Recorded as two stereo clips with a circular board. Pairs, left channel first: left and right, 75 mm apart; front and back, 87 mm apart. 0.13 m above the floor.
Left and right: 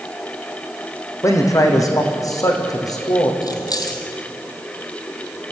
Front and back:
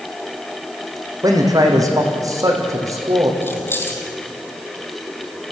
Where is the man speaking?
135° left, 5 m; by 3.3 s 125° left, 6 m.